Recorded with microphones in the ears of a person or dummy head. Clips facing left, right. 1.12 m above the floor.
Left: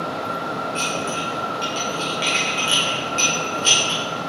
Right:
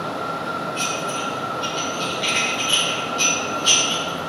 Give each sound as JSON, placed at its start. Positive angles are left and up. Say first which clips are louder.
{"t": 0.8, "sound": "dishes clattering", "louder": "left 1 dB", "side_deg": 40, "distance_m": 2.5}